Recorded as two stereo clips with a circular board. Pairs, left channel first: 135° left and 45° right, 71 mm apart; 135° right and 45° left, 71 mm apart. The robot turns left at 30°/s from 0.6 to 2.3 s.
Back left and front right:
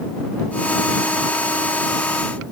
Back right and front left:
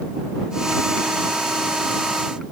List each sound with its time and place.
Only background noise.